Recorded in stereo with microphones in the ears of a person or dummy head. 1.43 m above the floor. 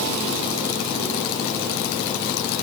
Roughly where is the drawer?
No drawer in this recording.